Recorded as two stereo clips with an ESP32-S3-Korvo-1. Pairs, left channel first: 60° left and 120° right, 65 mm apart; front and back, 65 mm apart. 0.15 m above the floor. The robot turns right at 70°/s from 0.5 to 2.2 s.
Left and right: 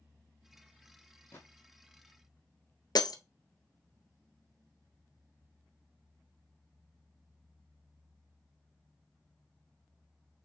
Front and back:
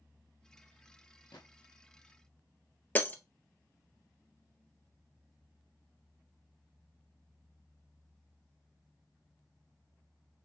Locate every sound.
1.3 s a gunshot: straight ahead, 1.5 m; by 1.5 s 10° left, 1.5 m
3.0 s breaking glass: 65° left, 0.6 m